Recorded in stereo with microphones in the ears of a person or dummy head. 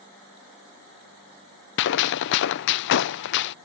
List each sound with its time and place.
1.8 s a gunshot: 60° left (ahead or behind)